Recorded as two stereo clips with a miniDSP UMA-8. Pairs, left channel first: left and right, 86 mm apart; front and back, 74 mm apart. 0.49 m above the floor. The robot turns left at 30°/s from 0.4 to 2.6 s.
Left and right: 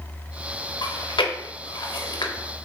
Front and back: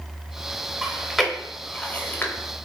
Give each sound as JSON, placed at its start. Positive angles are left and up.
{"t": 0.8, "sound": "chewing", "azimuth_deg": 105, "distance_m": 0.5}